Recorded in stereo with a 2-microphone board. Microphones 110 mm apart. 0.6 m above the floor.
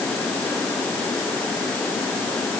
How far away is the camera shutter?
I don't hear a camera shutter.